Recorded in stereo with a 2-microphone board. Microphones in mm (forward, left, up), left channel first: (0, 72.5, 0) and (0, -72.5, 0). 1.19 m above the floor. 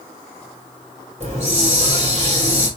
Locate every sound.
1.2 s a hiss: 50° right (ahead or behind), 2.5 m